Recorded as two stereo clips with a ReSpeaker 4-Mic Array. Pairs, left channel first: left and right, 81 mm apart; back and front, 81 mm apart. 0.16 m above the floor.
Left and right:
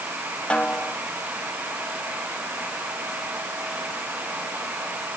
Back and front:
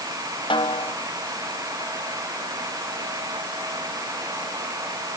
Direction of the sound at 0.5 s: 165° left.